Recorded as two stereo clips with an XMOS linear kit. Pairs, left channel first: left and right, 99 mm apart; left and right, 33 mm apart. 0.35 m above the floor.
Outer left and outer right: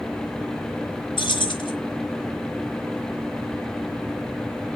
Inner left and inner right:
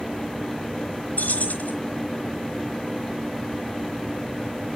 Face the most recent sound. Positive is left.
turn(degrees=55)  # may be behind; listen again after turning